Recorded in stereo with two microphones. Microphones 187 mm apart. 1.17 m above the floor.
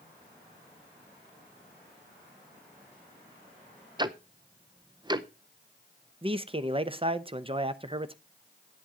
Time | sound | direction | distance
4.0 | ticking | 25° right (ahead or behind) | 0.6 m
6.2 | a man speaking | 30° right (ahead or behind) | 0.7 m